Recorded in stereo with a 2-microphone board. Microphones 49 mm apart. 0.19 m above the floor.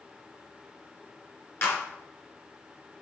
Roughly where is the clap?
Left.